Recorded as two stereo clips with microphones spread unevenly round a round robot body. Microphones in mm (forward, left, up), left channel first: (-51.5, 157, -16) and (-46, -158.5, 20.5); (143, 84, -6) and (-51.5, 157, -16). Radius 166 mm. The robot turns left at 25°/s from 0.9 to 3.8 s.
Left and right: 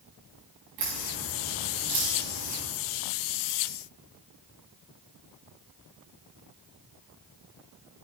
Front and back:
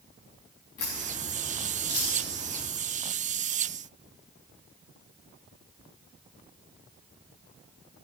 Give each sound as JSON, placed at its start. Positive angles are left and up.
{"t": 0.8, "sound": "a crack", "azimuth_deg": -55, "distance_m": 5.5}